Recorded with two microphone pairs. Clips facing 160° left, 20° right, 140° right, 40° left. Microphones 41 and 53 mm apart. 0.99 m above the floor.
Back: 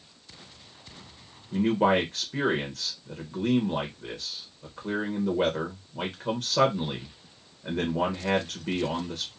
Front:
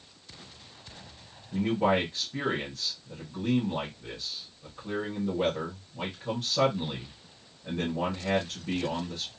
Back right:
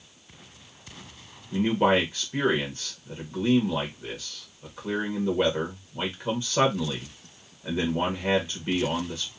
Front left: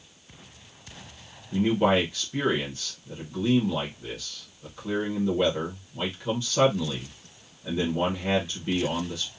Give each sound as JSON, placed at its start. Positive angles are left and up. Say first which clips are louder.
{"t": 1.5, "sound": "a man speaking", "louder": "back 3 dB, even", "azimuth_deg": 160, "distance_m": 0.9}